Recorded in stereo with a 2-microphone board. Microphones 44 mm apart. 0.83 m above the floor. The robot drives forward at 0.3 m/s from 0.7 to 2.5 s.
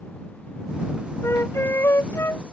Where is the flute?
75° left (ahead or behind); by 2.4 s 80° left.